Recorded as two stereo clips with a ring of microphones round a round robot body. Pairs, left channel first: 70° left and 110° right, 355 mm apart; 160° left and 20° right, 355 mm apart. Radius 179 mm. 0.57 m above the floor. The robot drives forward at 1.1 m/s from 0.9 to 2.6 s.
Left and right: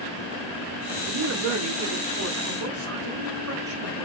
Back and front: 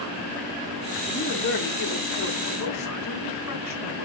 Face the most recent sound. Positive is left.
turn(degrees=-160)